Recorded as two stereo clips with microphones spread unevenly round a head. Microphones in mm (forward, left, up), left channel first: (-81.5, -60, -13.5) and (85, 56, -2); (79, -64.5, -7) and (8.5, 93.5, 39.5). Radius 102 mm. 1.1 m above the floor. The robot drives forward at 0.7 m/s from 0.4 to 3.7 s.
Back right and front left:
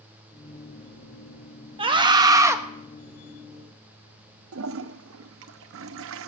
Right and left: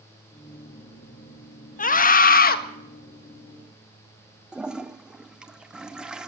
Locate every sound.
1.8 s a scream: 30° right, 1.8 m; by 2.6 s 45° right, 1.4 m
4.5 s a toilet flushing: 35° left, 0.8 m